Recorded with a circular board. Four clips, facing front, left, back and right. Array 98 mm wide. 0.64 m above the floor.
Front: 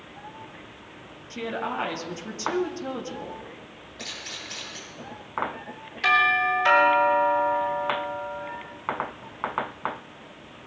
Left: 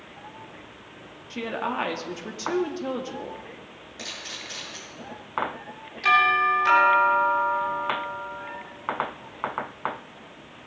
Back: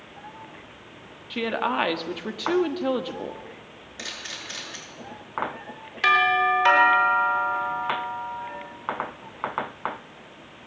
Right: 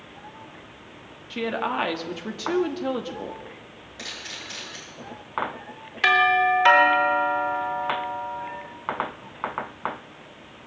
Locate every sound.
1.3 s a woman speaking: 165° right, 1.2 m
4.0 s a camera shutter: 175° right, 6.5 m
6.0 s a doorbell: 115° right, 4 m